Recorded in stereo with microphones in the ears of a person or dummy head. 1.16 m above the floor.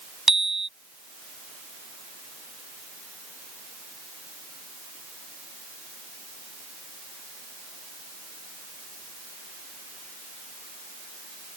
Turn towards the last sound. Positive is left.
turn(degrees=0)  # may be behind; listen again after turning